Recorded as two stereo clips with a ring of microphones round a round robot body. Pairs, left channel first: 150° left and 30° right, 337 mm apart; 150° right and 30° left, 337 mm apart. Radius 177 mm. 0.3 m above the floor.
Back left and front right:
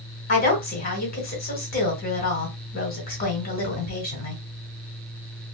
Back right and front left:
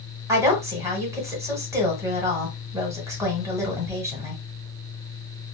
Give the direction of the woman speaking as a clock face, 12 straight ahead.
8 o'clock.